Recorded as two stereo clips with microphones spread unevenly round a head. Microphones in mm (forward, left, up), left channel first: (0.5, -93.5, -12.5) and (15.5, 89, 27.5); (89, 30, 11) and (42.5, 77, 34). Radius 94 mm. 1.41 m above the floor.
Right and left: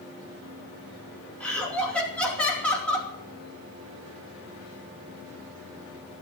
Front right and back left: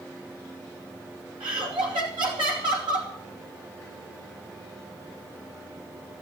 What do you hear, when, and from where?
1.4 s laughter: straight behind, 2.5 m